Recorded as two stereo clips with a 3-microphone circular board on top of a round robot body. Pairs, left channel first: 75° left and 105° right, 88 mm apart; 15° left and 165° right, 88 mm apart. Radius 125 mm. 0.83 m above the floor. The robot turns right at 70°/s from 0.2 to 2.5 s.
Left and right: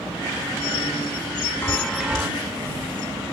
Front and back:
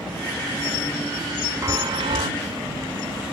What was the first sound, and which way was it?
A chime, 140° left.